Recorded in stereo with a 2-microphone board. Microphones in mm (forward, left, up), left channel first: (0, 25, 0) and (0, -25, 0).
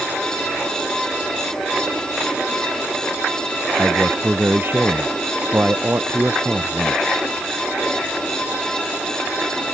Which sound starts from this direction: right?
A man speaking, at 3.8 s.